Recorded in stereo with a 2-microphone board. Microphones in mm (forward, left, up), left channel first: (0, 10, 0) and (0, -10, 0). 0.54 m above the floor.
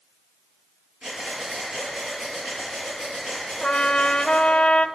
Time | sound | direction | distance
1.0 | breathing | 50° right (ahead or behind) | 6 m
3.6 | a trumpet | 75° left (ahead or behind) | 0.6 m